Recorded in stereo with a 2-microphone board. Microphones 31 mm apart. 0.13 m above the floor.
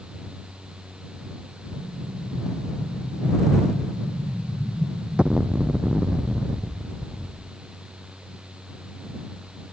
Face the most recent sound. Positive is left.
turn(degrees=-35)  # may be behind; listen again after turning